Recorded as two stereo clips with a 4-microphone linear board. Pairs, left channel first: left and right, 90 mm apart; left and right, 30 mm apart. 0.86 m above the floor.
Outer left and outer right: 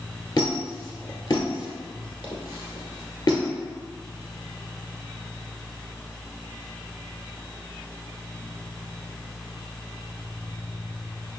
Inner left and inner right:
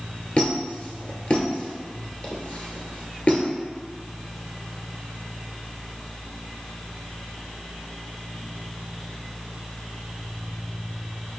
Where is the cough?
No cough in this recording.